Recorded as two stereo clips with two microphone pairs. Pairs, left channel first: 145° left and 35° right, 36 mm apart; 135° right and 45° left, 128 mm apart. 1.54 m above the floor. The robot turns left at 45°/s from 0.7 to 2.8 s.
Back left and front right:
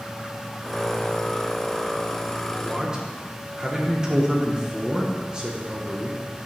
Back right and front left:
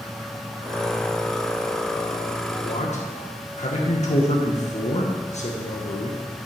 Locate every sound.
2.6 s a man speaking: 100° right, 1.4 m; by 6.2 s 105° right, 1.4 m